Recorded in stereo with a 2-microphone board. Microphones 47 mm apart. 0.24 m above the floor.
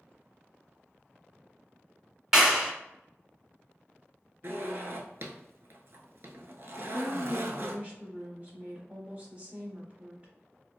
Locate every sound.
2.3 s a clap: 10° right (ahead or behind), 0.8 m
4.4 s a zipper: 55° right (ahead or behind), 0.5 m
6.8 s a woman speaking: 30° right (ahead or behind), 1.1 m